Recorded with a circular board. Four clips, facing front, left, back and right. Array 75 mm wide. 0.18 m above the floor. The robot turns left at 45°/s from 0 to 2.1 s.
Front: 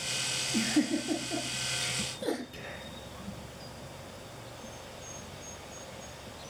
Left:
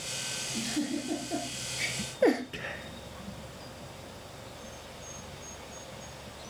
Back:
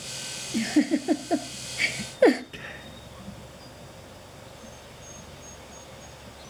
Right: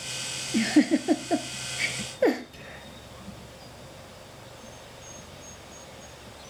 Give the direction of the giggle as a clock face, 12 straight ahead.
3 o'clock.